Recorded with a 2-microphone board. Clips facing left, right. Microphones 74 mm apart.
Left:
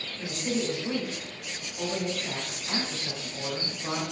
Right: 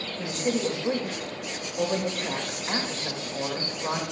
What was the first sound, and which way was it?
A woman speaking, 45° right (ahead or behind).